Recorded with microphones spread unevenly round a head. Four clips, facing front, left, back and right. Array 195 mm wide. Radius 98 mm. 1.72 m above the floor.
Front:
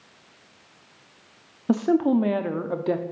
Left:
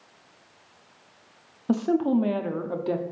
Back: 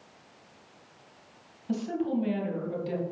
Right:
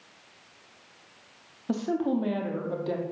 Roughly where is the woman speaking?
Ahead.